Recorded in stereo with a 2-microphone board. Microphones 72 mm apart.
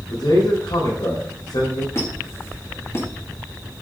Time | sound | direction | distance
0.1 | a man speaking | 80° left | 4 m
1.9 | a squeak | 40° left (ahead or behind) | 1.7 m